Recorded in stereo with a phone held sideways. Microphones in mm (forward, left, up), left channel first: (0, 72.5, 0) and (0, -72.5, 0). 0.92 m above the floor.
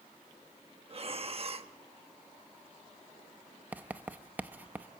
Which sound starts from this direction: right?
Breathing, at 0.9 s.